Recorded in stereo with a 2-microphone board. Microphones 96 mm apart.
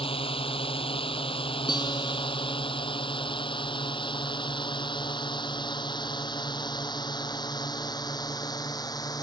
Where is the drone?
75° left (ahead or behind); by 9.2 s 45° left (ahead or behind).